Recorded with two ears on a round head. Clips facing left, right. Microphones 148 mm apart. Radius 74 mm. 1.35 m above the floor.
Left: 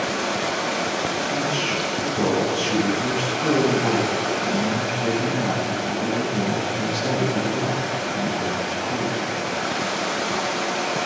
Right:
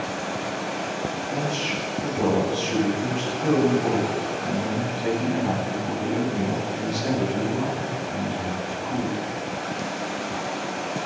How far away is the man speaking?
About 9.5 m.